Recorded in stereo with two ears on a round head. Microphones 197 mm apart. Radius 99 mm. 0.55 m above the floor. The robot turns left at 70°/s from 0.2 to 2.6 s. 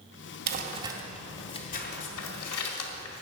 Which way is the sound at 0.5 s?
45° right (ahead or behind).